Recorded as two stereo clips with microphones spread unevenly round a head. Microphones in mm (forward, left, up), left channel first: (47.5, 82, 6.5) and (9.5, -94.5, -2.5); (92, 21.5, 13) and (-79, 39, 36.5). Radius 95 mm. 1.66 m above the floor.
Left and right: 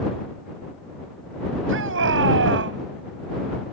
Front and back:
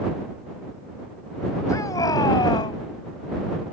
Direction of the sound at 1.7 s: 80° right.